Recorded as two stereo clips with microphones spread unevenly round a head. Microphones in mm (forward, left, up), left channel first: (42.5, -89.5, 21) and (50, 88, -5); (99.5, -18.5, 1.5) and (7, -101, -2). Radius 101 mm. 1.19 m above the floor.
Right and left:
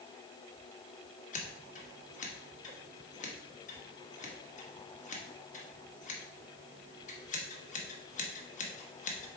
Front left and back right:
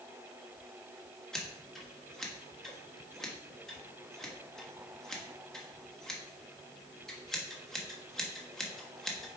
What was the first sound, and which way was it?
Scissors, 45° right.